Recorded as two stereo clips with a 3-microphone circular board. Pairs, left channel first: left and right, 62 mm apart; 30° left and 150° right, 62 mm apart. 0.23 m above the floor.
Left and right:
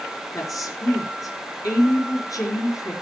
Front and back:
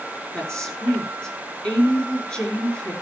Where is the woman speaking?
105° left, 4.5 m.